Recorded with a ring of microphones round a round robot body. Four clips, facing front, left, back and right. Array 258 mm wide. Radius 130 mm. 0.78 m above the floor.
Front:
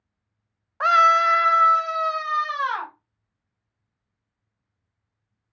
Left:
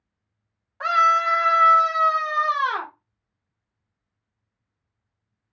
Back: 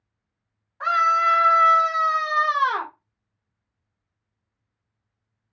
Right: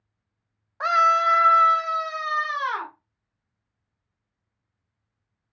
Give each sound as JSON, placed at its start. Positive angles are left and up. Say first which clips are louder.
{"t": 0.8, "sound": "a scream", "louder": "even, front 3 dB", "azimuth_deg": -10, "distance_m": 0.6}